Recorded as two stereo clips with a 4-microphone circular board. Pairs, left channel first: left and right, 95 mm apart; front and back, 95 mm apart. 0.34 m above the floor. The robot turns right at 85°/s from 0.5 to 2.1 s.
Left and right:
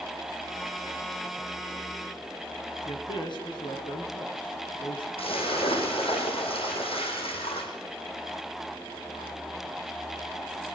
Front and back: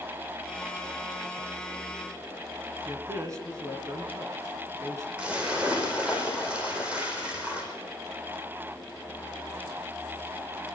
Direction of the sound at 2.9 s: 125° left.